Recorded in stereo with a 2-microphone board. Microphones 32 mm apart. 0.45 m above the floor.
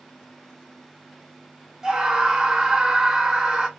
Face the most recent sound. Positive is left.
turn(degrees=-15)  # may be behind; listen again after turning